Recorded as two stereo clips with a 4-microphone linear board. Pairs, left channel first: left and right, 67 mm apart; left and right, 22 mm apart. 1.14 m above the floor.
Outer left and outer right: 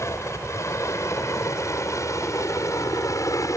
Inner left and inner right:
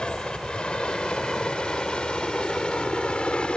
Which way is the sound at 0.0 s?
45° left (ahead or behind).